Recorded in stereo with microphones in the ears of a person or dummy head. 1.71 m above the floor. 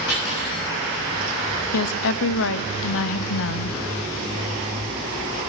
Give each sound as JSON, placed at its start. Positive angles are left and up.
{"t": 0.1, "sound": "cutlery clinking", "side_deg": 60, "distance_m": 7.0}
{"t": 1.7, "sound": "a woman speaking", "side_deg": 65, "distance_m": 0.8}